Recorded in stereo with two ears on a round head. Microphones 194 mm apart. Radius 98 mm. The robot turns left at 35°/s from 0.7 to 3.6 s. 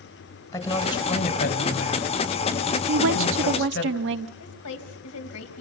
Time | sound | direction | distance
0.5 | a woman speaking | 15° left (ahead or behind) | 3.5 m
2.9 | a woman speaking | 70° right (ahead or behind) | 1.2 m
4.4 | a woman speaking | 85° left | 3.5 m